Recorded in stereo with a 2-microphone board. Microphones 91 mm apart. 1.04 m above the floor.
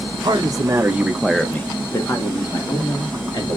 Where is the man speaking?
50° right (ahead or behind), 1.1 m; by 3.6 s 50° left (ahead or behind), 2.5 m.